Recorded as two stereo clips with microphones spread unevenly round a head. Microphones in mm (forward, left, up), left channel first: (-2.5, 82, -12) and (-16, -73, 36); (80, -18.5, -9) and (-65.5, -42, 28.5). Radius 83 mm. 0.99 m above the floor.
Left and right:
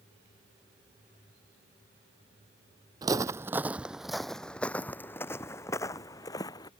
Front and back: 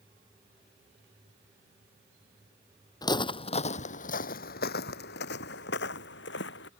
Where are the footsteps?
60° right; by 6.7 s 10° left.